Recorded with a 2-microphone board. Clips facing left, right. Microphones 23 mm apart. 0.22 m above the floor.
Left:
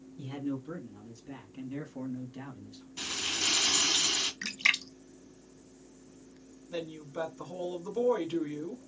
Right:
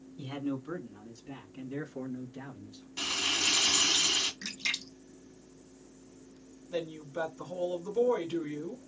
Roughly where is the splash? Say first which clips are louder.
Left 6 dB; left.